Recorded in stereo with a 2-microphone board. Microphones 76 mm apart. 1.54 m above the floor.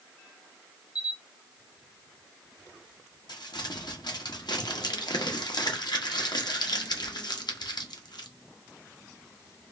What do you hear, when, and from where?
0.9 s a camera shutter: 65° left (ahead or behind), 1.9 m
3.3 s crumpling: 80° left, 0.9 m